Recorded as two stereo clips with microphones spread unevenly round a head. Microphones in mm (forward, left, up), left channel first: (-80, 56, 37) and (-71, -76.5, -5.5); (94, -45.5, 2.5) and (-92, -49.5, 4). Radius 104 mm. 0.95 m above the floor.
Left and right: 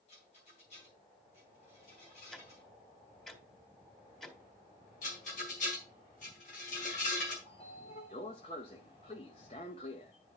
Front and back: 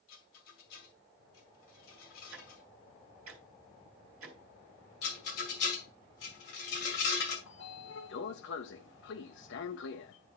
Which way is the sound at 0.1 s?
35° left.